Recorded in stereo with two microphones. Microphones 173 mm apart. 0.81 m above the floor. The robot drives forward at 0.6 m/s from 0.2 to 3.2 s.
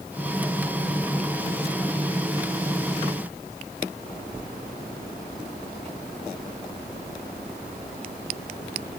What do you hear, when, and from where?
Only background noise.